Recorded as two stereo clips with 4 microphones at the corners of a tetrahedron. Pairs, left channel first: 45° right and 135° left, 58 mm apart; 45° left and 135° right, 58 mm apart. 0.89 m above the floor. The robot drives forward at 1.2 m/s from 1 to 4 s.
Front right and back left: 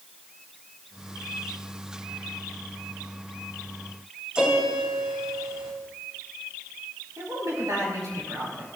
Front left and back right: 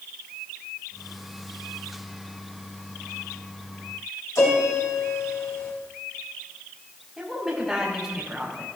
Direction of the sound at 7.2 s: 140° left.